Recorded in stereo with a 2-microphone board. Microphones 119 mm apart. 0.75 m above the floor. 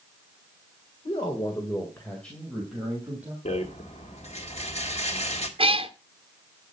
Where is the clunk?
I don't hear a clunk.